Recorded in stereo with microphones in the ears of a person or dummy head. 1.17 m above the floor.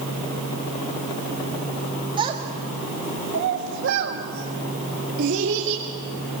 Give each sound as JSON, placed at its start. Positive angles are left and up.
{"t": 2.2, "sound": "a child speaking", "side_deg": -25, "distance_m": 1.8}